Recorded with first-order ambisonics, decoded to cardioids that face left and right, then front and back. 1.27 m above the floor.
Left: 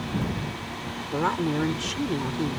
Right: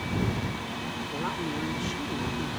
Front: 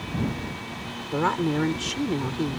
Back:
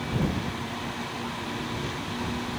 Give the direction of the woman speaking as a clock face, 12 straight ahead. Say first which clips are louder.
Left 8 dB, front 9 dB; 11 o'clock.